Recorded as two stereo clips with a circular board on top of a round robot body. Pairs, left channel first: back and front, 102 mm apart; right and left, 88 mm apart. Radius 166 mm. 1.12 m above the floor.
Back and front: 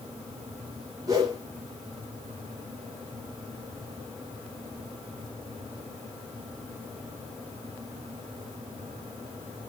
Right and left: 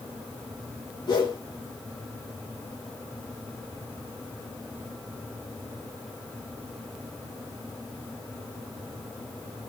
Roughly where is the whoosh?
Ahead right.